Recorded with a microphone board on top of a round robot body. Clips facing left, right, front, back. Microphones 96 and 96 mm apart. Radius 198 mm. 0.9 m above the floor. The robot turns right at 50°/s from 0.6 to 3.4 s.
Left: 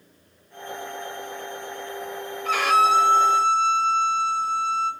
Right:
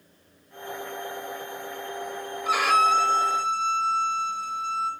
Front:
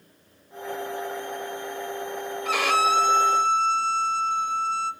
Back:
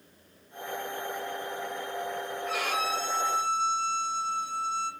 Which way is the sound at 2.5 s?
10° right.